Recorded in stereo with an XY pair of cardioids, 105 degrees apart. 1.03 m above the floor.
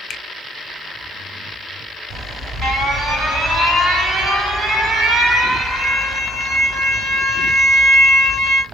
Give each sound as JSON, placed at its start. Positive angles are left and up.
{"t": 0.1, "sound": "a finger snap", "azimuth_deg": 55, "distance_m": 0.5}
{"t": 2.1, "sound": "an alarm", "azimuth_deg": -40, "distance_m": 2.5}